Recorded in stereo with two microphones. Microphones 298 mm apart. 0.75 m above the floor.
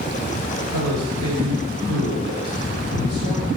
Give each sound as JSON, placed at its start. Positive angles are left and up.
{"t": 0.7, "sound": "a man speaking", "side_deg": -80, "distance_m": 3.0}